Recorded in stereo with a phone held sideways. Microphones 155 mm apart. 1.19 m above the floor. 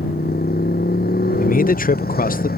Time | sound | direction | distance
0.0 | a motorcycle | 80° left | ?
1.4 | a man speaking | 65° left (ahead or behind) | ?